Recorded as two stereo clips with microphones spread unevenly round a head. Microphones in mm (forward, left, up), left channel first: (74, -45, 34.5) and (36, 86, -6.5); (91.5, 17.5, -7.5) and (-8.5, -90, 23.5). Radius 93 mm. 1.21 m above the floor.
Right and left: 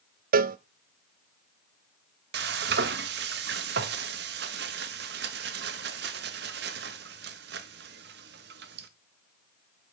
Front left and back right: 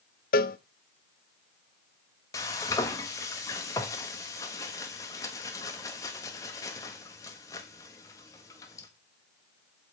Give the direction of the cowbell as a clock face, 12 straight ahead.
9 o'clock.